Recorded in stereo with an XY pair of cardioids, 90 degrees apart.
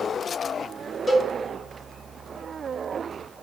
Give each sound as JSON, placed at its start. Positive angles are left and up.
{"t": 1.1, "sound": "a cowbell", "azimuth_deg": 45, "distance_m": 1.2}